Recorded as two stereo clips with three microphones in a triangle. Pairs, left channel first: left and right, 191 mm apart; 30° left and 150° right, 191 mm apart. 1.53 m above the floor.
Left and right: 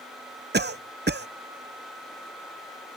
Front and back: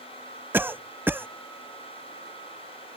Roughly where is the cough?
Right.